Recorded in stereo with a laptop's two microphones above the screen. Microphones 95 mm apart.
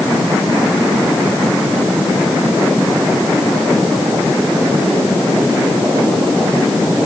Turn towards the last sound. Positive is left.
No sound to turn to.